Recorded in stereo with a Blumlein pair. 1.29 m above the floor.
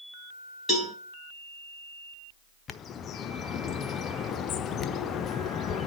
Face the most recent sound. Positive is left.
turn(degrees=25)